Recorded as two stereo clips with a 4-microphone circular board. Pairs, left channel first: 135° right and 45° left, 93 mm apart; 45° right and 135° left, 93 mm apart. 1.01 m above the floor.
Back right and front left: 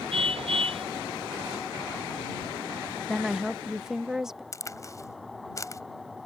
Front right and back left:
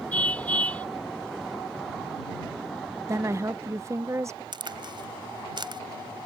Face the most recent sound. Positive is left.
turn(degrees=170)